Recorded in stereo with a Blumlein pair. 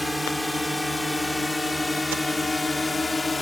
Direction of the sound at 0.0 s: 5° left.